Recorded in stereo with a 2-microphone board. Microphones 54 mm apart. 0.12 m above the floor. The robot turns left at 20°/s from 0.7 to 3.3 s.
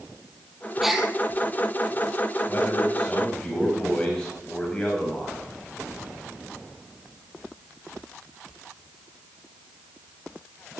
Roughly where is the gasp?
Centre.